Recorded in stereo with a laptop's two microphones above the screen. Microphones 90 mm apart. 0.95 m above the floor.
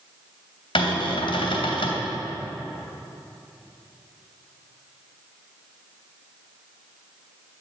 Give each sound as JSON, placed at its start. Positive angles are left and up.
{"t": 0.8, "sound": "a cupboard door", "side_deg": 80, "distance_m": 2.5}